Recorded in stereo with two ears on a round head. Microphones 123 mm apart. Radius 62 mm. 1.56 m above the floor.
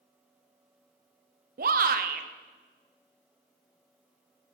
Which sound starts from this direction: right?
A shout, at 1.6 s.